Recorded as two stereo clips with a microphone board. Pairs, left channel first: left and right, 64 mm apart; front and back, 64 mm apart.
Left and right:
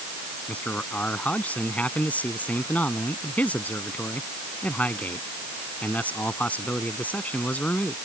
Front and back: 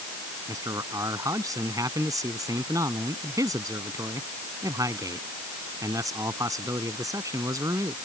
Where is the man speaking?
155° left.